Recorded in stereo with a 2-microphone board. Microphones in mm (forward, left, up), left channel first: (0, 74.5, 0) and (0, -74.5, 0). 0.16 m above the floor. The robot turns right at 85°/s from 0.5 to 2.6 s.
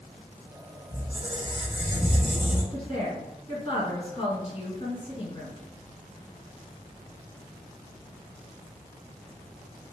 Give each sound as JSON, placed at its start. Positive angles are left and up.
{"t": 0.9, "sound": "a squeak", "azimuth_deg": -65, "distance_m": 1.7}
{"t": 2.7, "sound": "a woman speaking", "side_deg": 35, "distance_m": 1.6}